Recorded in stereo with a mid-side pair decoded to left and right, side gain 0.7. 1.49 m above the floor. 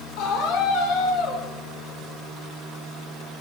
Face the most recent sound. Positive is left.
turn(degrees=60)